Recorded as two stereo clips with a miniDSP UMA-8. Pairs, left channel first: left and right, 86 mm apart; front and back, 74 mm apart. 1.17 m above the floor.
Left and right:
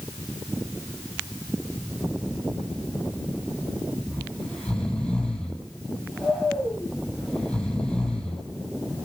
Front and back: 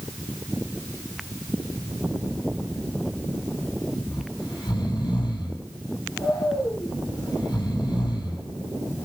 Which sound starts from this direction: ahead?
Snoring, at 4.1 s.